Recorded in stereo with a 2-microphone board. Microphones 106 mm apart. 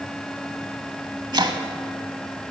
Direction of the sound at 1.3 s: 45° right (ahead or behind).